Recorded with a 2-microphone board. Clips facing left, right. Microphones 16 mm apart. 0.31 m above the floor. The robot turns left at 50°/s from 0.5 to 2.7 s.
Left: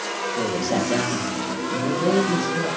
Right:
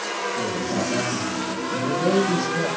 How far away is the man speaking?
About 9.5 m.